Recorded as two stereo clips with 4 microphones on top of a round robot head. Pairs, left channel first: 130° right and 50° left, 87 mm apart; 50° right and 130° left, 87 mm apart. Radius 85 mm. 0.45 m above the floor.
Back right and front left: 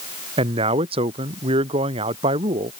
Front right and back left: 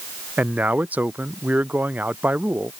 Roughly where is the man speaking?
Ahead left.